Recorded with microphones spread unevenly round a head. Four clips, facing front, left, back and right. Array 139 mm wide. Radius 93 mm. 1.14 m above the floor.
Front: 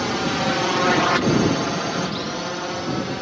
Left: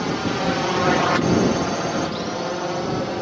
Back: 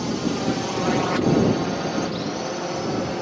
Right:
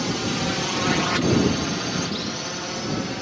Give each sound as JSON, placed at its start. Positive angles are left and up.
{"t": 0.0, "sound": "a drone", "azimuth_deg": 25}